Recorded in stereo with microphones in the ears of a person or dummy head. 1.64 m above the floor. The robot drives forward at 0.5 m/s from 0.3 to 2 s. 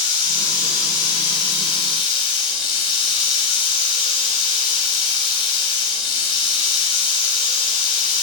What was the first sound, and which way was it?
Running water, 25° left (ahead or behind).